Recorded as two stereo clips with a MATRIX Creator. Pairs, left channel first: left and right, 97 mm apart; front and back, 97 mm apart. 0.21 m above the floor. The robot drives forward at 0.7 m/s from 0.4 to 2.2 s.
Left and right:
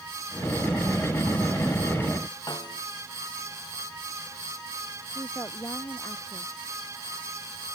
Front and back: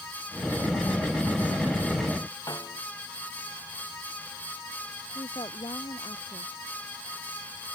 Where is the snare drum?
50° left.